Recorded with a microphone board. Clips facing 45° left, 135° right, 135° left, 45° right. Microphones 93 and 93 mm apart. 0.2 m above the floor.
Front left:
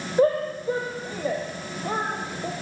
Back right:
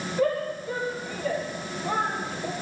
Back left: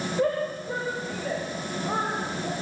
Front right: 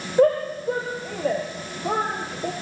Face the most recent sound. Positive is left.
turn(degrees=-35)